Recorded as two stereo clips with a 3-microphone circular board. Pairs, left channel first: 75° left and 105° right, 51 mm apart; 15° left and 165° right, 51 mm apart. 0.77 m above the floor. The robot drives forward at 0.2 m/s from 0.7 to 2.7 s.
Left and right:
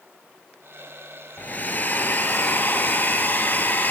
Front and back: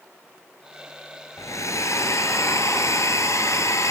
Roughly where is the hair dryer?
Ahead left.